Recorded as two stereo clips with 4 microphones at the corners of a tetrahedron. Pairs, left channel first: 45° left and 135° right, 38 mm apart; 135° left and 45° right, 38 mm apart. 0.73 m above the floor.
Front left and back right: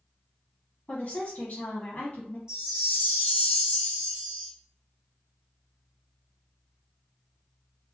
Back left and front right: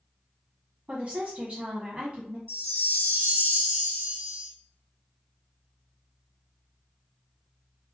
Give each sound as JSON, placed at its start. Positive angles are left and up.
{"t": 0.9, "sound": "a woman speaking", "azimuth_deg": 0, "distance_m": 1.2}
{"t": 2.5, "sound": "a chime", "azimuth_deg": -65, "distance_m": 1.2}